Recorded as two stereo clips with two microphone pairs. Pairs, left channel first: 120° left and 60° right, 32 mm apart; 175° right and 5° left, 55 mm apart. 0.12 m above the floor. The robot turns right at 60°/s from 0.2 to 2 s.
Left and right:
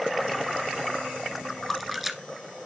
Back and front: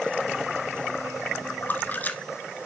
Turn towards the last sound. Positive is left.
turn(degrees=-140)